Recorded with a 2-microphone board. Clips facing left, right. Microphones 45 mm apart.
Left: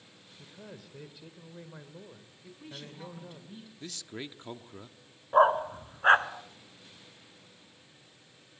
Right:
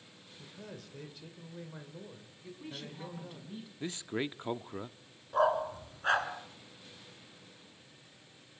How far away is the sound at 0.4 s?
About 2 m.